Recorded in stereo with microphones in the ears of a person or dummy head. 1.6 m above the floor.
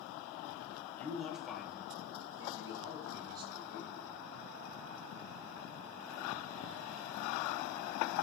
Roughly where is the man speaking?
Left.